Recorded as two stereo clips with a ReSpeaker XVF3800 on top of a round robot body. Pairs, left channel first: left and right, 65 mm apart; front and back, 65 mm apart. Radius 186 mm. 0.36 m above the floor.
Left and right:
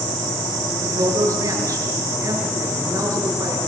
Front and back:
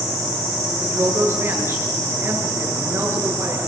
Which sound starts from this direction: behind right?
A woman speaking, at 0.8 s.